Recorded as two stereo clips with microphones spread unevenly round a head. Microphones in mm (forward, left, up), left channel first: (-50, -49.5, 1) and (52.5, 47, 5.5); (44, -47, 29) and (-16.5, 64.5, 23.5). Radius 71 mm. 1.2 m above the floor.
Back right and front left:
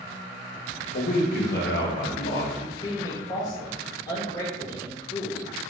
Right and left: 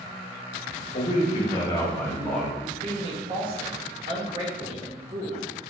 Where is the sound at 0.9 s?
100° right, 1.0 m; by 2.5 s 150° right, 1.1 m.